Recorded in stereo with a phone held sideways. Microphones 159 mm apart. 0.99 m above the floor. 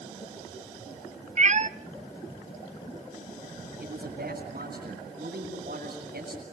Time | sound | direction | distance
1.4 | a cat meowing | 50° right (ahead or behind) | 0.6 m
3.8 | a man speaking | 80° right | 7.5 m